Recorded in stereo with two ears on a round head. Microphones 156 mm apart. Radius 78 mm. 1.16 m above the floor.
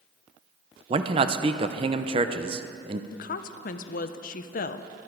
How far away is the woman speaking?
About 0.6 m.